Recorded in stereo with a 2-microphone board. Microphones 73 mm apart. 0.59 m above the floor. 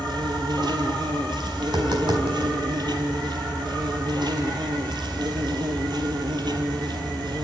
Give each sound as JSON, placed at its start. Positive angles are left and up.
{"t": 0.0, "sound": "an insect", "side_deg": -80, "distance_m": 2.5}
{"t": 1.6, "sound": "tapping", "side_deg": -80, "distance_m": 4.0}